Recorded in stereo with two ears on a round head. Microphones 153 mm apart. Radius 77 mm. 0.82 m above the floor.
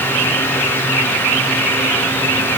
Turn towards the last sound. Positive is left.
No sound to turn to.